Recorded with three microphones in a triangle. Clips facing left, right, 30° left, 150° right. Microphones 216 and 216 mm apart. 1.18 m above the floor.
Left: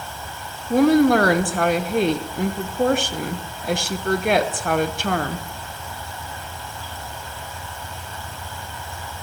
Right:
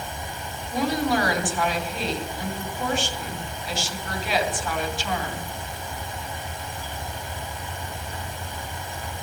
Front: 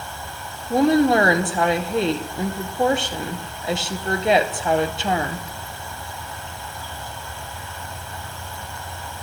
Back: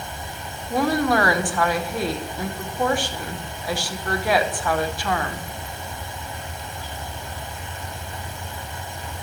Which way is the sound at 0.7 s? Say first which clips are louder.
Left 10 dB, front 5 dB; 90° left.